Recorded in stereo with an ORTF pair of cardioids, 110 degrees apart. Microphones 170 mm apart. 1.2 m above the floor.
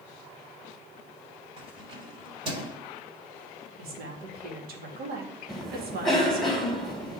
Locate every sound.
1.6 s keys jangling: 35° right, 4.5 m
3.8 s a woman speaking: 65° right, 2.5 m
5.5 s a cough: straight ahead, 3.5 m